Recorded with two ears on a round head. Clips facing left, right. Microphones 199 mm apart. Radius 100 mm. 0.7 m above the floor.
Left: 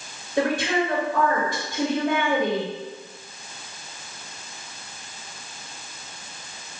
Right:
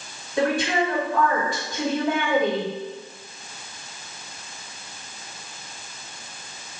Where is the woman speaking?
20° left (ahead or behind), 1.6 m.